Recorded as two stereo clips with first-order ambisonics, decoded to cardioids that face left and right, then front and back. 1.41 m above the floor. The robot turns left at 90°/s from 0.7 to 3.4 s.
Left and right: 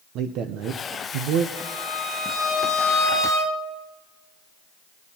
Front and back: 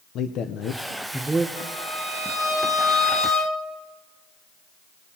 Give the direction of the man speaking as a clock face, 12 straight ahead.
2 o'clock.